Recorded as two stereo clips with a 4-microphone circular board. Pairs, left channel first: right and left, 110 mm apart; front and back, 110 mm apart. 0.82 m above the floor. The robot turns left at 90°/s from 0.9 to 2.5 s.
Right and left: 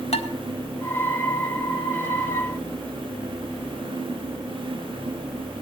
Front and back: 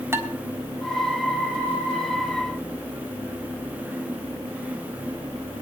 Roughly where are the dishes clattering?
Behind right.